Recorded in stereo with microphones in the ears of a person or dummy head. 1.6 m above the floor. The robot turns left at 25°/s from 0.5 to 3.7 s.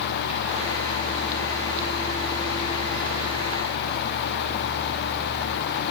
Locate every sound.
Only background noise.